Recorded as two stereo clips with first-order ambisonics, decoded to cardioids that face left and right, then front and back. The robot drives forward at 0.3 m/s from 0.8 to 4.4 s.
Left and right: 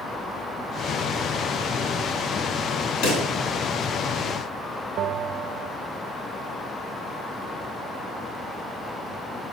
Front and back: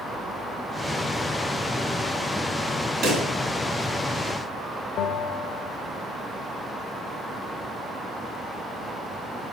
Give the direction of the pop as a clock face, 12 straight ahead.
8 o'clock.